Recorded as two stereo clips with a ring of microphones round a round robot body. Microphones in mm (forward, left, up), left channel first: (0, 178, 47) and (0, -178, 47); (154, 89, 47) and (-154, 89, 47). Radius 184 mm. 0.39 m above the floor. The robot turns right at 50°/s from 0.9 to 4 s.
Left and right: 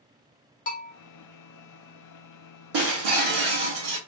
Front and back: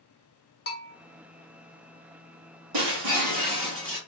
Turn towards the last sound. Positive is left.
turn(degrees=-80)